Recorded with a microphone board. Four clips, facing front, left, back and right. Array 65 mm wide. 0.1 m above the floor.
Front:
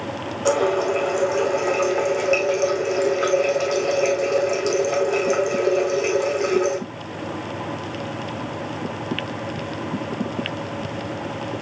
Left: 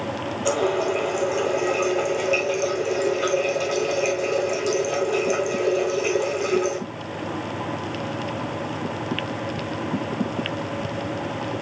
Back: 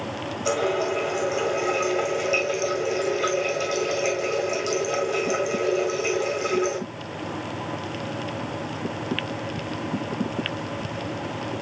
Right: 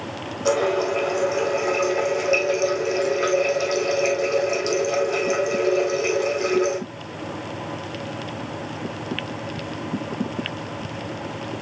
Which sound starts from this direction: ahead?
A running tap, at 0.5 s.